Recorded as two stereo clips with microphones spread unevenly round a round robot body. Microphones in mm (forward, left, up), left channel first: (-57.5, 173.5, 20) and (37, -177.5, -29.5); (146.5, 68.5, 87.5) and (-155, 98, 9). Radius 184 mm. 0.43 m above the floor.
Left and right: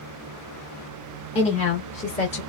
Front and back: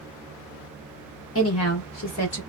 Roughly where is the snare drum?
No snare drum in this recording.